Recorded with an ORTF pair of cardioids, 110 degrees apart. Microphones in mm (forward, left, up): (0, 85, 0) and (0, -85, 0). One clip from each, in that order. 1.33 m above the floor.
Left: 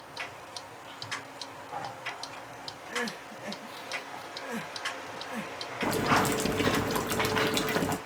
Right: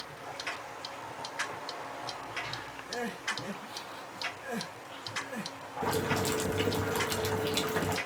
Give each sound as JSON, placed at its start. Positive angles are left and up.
{"t": 2.9, "sound": "crying", "azimuth_deg": 5, "distance_m": 1.9}
{"t": 5.8, "sound": "boiling", "azimuth_deg": 20, "distance_m": 1.6}